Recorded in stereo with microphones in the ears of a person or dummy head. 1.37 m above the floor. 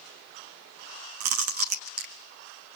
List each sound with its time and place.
1.2 s chewing: 50° right (ahead or behind), 1.1 m